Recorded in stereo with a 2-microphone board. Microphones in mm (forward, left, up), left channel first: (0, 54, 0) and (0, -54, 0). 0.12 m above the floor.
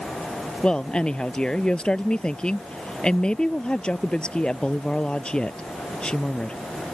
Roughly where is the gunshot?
I don't hear a gunshot.